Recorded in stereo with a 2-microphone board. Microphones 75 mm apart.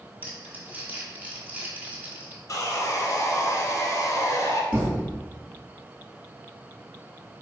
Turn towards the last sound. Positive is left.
turn(degrees=-20)  # may be behind; listen again after turning